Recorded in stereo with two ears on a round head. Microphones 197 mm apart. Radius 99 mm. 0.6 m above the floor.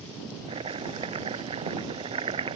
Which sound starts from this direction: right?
Chopping, at 0.5 s.